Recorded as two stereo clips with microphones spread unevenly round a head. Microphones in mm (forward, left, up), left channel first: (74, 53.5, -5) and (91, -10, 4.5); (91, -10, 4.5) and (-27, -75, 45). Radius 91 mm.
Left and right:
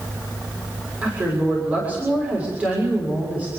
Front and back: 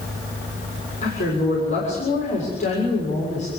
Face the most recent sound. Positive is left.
turn(degrees=-10)